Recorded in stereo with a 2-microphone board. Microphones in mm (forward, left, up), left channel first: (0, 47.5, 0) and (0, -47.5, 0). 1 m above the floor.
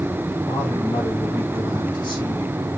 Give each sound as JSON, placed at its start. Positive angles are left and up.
{"t": 0.5, "sound": "a man speaking", "side_deg": 45, "distance_m": 3.5}